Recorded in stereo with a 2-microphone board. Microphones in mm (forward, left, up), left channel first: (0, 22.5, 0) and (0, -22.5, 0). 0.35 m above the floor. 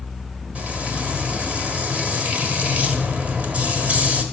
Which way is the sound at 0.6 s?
30° right (ahead or behind).